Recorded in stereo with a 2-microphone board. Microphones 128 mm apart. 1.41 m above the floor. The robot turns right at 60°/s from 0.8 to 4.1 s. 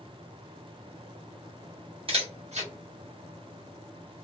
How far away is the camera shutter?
About 1.3 m.